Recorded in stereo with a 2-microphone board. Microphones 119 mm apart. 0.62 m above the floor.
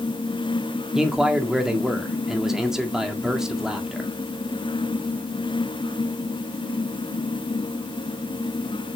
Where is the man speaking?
5° right (ahead or behind), 1.6 m.